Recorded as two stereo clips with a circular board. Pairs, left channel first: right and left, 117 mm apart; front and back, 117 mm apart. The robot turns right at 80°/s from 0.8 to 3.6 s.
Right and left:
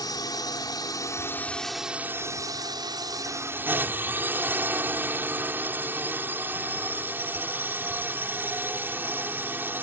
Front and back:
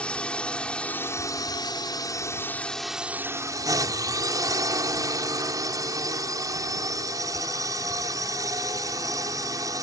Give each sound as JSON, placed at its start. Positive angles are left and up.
{"t": 0.0, "sound": "a drone", "azimuth_deg": -75}